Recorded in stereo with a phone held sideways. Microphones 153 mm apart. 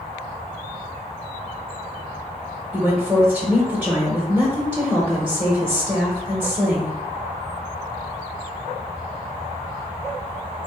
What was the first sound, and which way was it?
A woman speaking, 5° right (ahead or behind).